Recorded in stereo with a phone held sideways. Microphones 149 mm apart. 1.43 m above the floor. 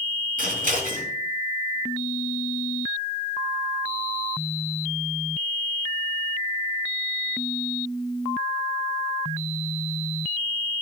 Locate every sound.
0.4 s scissors: 75° right (ahead or behind), 4.5 m